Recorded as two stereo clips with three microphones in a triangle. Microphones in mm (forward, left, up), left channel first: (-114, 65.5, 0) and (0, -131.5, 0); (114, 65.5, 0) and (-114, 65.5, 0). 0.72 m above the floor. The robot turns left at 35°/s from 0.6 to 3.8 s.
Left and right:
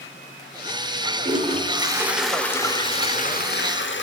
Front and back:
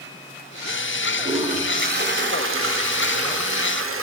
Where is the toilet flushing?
115° right, 1.0 m; by 4.0 s 155° left, 1.0 m.